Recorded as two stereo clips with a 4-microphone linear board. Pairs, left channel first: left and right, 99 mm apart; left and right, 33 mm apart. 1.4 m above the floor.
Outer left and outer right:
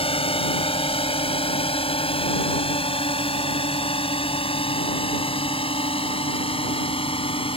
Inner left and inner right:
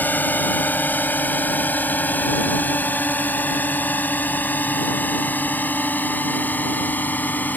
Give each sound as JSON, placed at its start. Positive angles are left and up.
{"t": 0.0, "sound": "a drone", "side_deg": 75}